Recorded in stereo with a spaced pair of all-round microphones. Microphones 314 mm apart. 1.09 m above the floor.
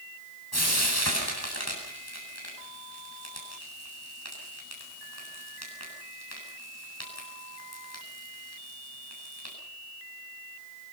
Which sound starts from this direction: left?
Frying, at 0.5 s.